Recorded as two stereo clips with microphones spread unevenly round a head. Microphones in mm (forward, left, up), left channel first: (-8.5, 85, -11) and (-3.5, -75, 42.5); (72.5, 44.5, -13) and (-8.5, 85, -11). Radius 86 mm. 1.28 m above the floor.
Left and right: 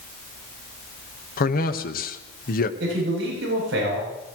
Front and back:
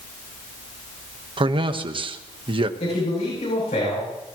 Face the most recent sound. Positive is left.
turn(degrees=-65)